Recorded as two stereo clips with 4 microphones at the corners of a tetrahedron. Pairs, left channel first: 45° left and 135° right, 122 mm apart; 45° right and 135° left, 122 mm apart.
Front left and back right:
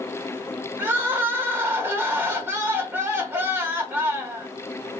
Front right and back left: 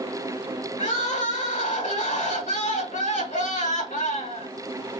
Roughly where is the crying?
Ahead right.